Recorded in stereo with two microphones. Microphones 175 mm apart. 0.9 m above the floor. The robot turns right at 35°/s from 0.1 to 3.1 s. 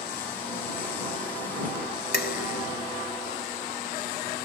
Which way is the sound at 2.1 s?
70° left (ahead or behind).